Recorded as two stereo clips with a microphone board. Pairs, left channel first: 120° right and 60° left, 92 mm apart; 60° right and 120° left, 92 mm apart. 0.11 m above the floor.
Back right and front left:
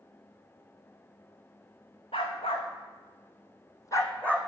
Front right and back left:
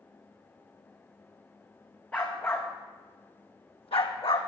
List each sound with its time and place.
2.1 s a dog barking: 130° right, 2 m; by 4.5 s 40° right, 1.6 m